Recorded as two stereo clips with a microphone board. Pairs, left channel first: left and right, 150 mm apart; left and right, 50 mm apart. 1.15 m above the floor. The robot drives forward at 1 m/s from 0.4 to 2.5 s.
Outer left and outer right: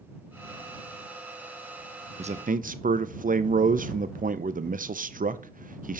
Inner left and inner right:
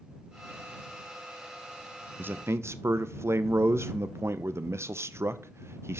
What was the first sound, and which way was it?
A man speaking, 45° right (ahead or behind).